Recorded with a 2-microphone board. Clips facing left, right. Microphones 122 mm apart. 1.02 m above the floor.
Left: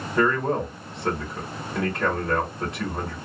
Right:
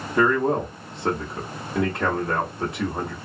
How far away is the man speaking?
About 1.1 m.